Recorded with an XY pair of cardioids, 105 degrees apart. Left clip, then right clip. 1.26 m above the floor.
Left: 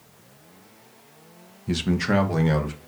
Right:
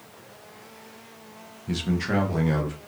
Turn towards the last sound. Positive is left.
turn(degrees=40)